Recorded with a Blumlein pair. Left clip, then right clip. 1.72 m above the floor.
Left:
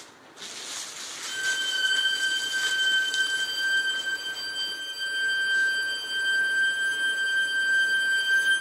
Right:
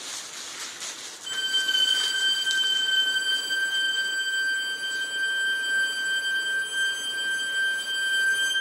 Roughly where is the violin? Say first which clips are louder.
Right 2 dB; ahead right.